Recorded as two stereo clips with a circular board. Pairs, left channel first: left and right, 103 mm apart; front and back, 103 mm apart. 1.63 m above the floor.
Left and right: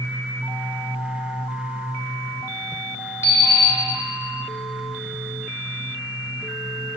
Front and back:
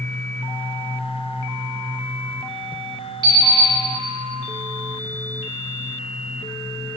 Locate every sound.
3.2 s an alarm clock: 140° left, 1.7 m